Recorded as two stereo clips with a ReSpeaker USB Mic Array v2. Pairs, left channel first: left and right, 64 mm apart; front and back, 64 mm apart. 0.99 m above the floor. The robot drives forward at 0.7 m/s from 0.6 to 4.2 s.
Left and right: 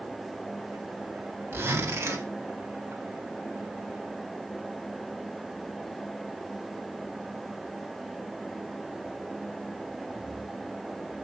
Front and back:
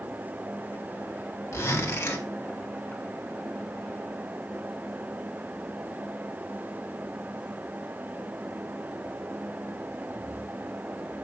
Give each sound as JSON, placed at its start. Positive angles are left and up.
{"t": 1.5, "sound": "a zipper", "azimuth_deg": -40, "distance_m": 2.0}